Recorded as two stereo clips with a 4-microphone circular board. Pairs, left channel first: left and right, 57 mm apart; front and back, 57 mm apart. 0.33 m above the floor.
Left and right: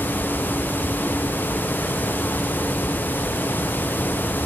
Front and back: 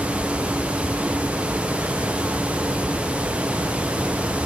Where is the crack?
I don't hear a crack.